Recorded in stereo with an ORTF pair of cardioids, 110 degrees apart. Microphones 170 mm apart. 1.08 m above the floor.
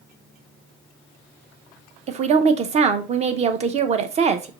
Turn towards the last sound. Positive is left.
turn(degrees=-40)